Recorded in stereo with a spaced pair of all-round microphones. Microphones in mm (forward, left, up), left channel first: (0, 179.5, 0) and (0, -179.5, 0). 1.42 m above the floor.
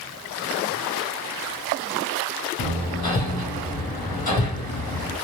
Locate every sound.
2.6 s hammering: 80° left, 0.9 m